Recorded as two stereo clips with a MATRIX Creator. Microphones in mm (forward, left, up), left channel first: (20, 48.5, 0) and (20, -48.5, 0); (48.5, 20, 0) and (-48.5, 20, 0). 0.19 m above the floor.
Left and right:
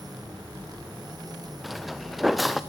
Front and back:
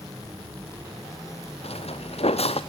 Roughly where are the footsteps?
Ahead.